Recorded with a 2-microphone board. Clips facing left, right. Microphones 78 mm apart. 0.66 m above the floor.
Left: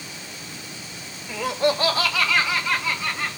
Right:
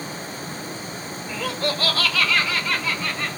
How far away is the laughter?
About 0.6 m.